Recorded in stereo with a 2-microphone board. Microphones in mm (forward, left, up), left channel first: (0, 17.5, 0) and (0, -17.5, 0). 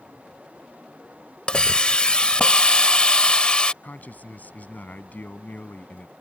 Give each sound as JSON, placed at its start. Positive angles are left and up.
{"t": 1.5, "sound": "a hiss", "side_deg": 30}
{"t": 3.8, "sound": "a man speaking", "side_deg": 60}